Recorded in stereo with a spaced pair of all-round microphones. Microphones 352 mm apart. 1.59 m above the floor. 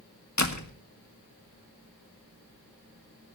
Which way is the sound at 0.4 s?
50° left (ahead or behind).